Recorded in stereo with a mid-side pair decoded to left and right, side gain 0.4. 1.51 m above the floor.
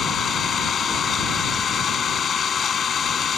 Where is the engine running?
50° left.